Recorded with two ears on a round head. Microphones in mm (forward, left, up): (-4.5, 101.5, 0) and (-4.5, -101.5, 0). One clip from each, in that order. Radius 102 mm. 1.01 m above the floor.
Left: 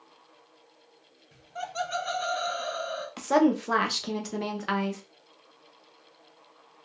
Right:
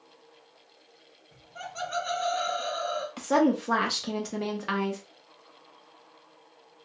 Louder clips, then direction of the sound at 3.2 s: Left 1 dB; 10° left (ahead or behind).